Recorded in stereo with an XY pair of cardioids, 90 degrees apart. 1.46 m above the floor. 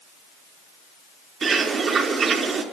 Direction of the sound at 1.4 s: 55° right.